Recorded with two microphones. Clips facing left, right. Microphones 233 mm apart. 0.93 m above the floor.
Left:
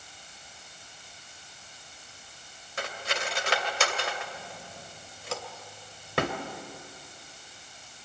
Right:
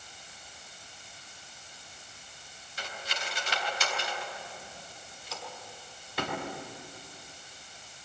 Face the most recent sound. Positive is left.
turn(degrees=85)